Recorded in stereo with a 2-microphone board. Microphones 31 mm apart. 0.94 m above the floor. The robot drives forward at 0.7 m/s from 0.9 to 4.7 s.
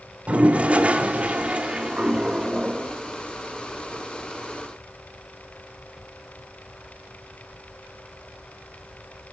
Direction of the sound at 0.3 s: 40° right (ahead or behind).